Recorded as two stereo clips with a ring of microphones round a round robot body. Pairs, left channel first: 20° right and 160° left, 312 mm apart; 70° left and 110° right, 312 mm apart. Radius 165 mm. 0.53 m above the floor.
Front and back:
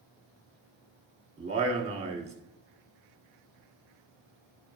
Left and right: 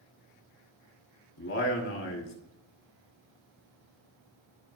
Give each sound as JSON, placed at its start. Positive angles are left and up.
{"t": 1.4, "sound": "a man speaking", "azimuth_deg": 90, "distance_m": 2.0}